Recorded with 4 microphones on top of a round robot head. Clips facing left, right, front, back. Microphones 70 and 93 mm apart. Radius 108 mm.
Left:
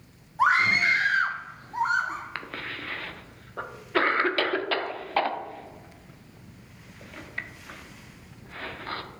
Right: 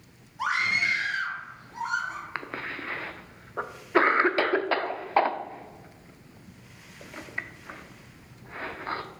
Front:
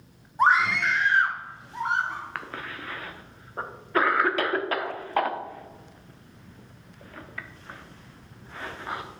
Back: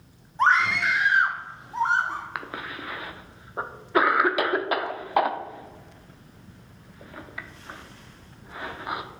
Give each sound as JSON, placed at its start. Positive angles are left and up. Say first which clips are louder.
{"t": 0.4, "sound": "a scream", "louder": "left 5 dB, even", "azimuth_deg": 70, "distance_m": 0.9}
{"t": 2.4, "sound": "a cough", "louder": "right 1 dB, back 2 dB", "azimuth_deg": -125, "distance_m": 0.7}